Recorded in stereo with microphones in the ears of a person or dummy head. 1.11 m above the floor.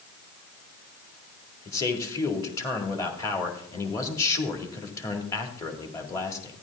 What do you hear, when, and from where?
1.6 s a man speaking: 20° left (ahead or behind), 1.9 m